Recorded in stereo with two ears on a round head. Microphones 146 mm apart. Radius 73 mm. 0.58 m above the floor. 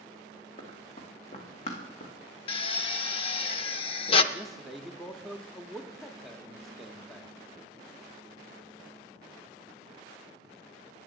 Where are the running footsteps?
35° left (ahead or behind), 2.5 m; by 2.1 s 50° left (ahead or behind), 2 m.